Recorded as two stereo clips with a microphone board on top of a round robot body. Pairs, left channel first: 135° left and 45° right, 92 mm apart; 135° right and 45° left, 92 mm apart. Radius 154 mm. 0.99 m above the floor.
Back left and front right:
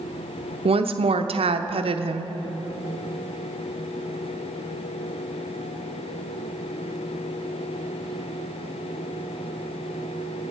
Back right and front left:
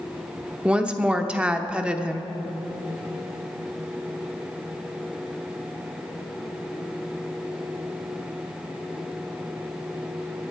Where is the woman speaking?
35° right, 0.8 m.